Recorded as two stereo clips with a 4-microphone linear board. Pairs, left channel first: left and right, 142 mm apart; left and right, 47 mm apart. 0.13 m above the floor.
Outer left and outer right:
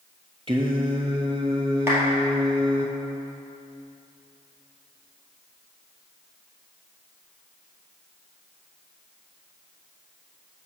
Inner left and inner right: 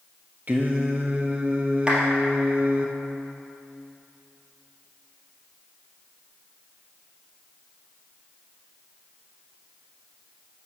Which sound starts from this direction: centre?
A clap, at 1.9 s.